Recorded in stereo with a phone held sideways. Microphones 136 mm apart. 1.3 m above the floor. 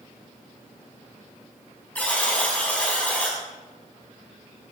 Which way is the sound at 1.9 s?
10° left (ahead or behind).